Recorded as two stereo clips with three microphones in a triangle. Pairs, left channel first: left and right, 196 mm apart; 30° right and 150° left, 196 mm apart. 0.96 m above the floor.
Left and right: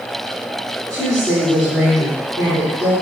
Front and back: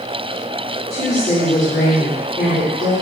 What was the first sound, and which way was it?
A woman speaking, 5° left.